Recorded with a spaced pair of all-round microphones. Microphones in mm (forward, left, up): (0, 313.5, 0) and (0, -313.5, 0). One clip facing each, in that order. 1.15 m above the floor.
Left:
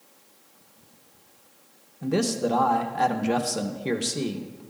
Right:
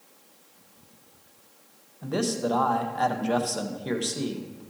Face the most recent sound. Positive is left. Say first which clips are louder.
# left 3 dB
turn(degrees=50)  # may be behind; listen again after turning